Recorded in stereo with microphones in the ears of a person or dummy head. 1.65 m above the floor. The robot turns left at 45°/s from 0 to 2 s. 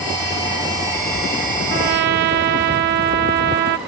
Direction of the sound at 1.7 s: 45° right (ahead or behind).